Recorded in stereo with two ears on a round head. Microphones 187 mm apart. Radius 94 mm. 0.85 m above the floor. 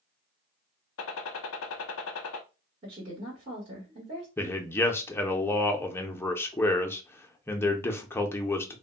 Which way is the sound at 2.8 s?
30° right (ahead or behind).